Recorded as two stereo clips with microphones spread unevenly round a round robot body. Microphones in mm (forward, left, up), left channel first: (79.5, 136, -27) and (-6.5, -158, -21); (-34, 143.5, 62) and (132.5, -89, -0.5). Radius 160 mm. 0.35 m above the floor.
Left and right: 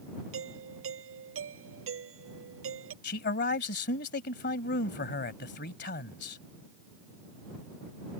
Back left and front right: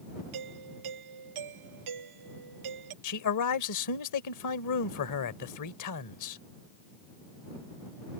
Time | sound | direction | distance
0.3 | a doorbell | 60° right | ?
3.0 | a man speaking | 125° left | ?